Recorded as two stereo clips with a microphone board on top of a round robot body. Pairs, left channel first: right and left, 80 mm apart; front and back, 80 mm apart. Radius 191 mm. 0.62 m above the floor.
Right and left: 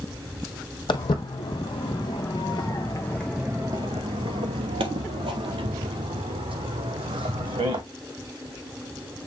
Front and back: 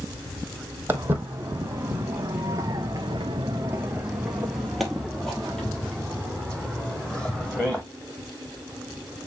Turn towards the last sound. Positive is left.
turn(degrees=80)